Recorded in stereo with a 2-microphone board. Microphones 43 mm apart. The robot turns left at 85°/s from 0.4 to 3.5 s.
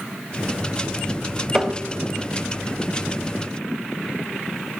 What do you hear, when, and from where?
1.5 s tapping: 10° right (ahead or behind), 0.9 m; by 1.8 s 15° right (ahead or behind), 0.9 m